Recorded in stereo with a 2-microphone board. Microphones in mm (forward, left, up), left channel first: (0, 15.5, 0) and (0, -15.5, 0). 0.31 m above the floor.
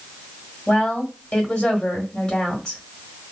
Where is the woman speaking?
25° left (ahead or behind), 1.4 m.